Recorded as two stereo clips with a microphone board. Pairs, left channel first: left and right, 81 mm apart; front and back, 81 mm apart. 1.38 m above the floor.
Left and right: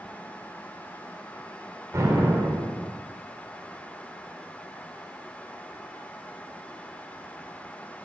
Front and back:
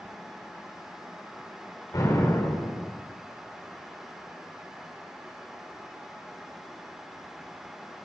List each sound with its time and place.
1.9 s an explosion: 40° right, 4 m